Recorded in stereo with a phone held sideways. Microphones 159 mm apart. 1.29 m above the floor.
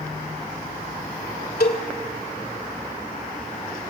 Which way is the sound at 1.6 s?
75° left (ahead or behind).